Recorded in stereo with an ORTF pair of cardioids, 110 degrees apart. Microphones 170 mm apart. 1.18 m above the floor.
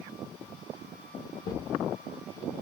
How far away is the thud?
About 1.8 m.